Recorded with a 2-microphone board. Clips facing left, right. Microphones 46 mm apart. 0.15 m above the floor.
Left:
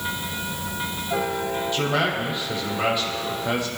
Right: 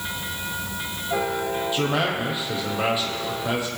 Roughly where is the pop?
No pop in this recording.